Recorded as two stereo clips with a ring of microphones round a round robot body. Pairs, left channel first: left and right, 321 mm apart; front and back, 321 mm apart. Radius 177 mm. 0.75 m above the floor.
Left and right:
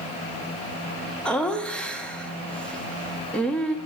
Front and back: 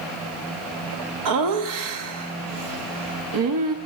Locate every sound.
1.2 s laughter: 175° left, 1.0 m